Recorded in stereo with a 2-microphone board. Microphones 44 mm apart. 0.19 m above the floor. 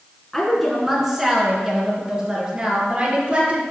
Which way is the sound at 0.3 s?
5° left (ahead or behind).